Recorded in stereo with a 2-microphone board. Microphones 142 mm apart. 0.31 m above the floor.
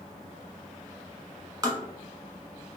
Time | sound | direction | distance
1.6 | tapping | 25° right (ahead or behind) | 1.0 m